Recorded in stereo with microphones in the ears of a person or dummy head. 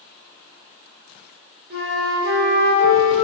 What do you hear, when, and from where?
1.7 s a flute: 60° right (ahead or behind), 1.9 m